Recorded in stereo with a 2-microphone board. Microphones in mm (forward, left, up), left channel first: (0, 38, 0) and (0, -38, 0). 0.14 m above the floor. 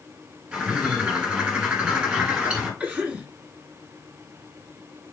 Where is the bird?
10° right (ahead or behind), 1.9 m.